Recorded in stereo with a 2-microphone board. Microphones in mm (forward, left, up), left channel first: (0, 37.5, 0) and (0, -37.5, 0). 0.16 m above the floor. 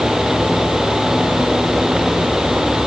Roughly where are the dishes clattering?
I don't hear dishes clattering.